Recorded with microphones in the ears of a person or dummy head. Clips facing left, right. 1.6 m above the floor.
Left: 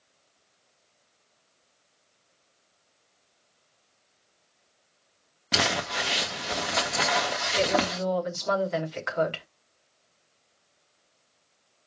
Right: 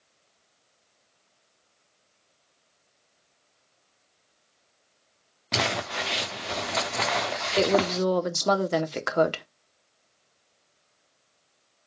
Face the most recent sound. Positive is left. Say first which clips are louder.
# right 4 dB
turn(degrees=-65)  # may be behind; listen again after turning